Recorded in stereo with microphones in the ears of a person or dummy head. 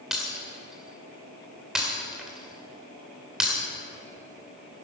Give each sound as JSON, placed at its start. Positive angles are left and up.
{"t": 0.1, "sound": "breaking glass", "side_deg": -5, "distance_m": 2.0}